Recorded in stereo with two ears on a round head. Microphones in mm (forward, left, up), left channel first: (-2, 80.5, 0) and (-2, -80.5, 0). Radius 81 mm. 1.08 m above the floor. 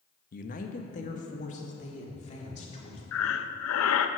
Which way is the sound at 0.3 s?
50° left (ahead or behind).